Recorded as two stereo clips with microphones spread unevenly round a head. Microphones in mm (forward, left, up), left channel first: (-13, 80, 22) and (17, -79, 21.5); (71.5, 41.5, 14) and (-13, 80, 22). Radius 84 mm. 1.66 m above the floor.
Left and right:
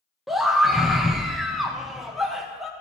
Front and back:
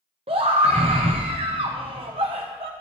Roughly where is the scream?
Behind.